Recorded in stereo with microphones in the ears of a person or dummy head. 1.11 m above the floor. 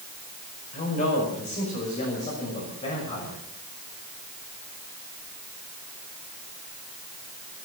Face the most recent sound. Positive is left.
turn(degrees=35)  # may be behind; listen again after turning